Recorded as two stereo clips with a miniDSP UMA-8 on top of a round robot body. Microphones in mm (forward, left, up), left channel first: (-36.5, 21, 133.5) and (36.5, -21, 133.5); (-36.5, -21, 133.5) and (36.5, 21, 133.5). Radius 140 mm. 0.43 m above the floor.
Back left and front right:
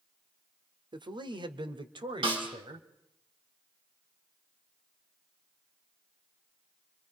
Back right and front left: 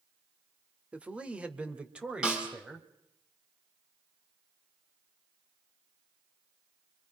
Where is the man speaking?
45° right, 1.5 m.